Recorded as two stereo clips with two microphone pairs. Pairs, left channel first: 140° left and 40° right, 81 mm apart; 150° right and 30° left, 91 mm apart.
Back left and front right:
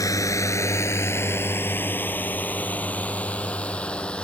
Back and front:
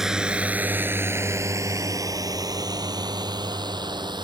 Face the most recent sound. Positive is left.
turn(degrees=65)